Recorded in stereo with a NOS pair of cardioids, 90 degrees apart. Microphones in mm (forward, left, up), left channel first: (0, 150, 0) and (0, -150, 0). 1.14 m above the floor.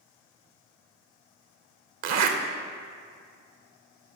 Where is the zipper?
65° right, 0.9 m.